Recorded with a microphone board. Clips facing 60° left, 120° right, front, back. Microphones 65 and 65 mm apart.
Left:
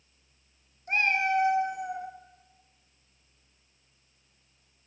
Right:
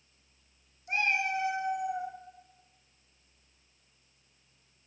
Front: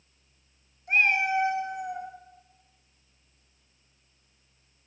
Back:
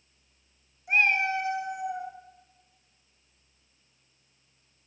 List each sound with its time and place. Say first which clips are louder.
0.9 s a cat meowing: left 4 dB, front 1 dB; 95° left, 0.8 m; by 2.1 s 30° left, 0.9 m